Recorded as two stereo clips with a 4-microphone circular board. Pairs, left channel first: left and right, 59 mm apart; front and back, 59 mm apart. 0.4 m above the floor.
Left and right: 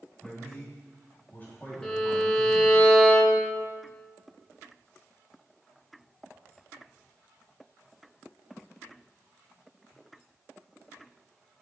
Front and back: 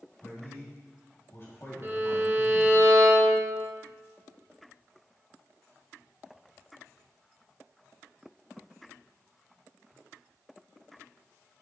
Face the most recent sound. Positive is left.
turn(degrees=160)